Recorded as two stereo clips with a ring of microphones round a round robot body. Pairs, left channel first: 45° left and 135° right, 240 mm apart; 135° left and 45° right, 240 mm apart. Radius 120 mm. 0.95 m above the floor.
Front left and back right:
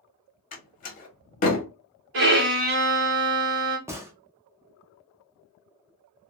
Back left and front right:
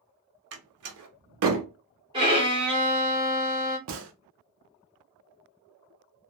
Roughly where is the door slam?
Ahead.